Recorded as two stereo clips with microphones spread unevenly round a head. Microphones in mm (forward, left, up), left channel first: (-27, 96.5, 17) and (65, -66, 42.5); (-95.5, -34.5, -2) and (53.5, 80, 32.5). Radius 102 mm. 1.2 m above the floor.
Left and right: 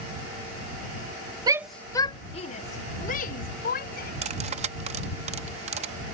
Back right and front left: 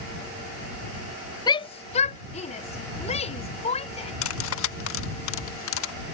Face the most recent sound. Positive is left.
turn(degrees=-115)